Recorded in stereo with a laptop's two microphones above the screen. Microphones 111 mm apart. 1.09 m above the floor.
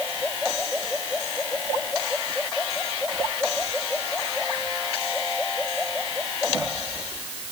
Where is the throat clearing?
I don't hear throat clearing.